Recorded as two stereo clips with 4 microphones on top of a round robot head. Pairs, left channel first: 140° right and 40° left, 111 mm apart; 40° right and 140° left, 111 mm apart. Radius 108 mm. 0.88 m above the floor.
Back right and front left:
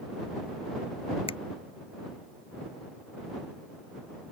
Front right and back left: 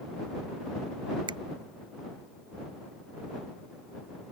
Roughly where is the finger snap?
Behind.